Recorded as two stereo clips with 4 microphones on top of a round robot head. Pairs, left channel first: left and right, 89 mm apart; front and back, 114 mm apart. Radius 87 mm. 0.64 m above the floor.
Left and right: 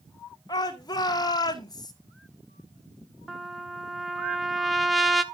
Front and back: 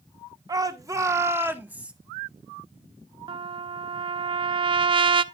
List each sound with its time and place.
0.5 s a shout: 130° left, 2 m; by 1.9 s 105° left, 1.6 m
3.3 s a trumpet: straight behind, 0.7 m